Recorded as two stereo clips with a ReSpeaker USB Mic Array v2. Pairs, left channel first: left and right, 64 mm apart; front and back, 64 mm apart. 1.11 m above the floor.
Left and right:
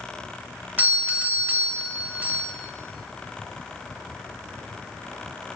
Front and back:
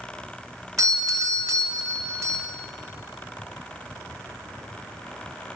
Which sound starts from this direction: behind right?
A doorbell, at 0.8 s.